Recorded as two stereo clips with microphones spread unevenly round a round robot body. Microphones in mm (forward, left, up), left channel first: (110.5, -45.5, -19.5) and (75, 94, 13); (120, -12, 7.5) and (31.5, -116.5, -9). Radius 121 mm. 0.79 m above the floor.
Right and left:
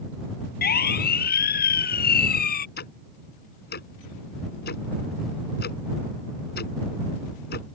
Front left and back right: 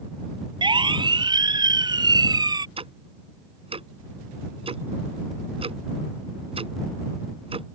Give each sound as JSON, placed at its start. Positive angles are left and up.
{"t": 0.6, "sound": "a siren", "azimuth_deg": -75}
{"t": 2.8, "sound": "ticking", "azimuth_deg": -80}